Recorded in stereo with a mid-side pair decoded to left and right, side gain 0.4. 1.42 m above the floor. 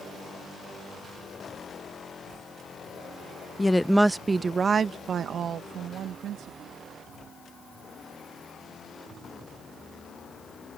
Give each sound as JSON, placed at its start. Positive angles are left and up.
{"t": 3.6, "sound": "a woman speaking", "azimuth_deg": 20}